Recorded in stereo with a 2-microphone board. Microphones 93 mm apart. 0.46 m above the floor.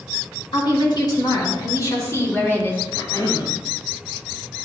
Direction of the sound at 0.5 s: 55° left (ahead or behind).